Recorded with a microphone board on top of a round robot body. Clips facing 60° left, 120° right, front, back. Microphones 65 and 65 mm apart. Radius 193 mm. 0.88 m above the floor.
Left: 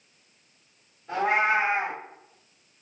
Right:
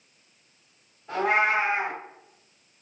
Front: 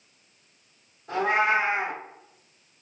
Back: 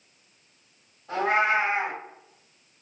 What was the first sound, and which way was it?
A cat meowing, 30° right.